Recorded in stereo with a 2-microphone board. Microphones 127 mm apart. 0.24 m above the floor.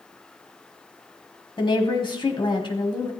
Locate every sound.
1.6 s a woman speaking: 40° left (ahead or behind), 1.4 m